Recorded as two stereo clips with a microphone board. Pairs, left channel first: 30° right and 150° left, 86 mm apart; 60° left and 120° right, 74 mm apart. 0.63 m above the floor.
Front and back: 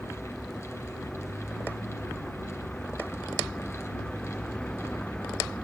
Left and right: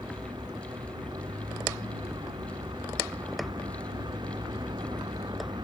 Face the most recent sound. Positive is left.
turn(degrees=-110)